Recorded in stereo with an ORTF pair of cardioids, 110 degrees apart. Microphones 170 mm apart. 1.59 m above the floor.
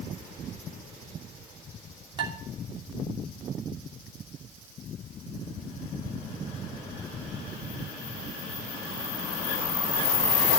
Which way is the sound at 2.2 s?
30° right.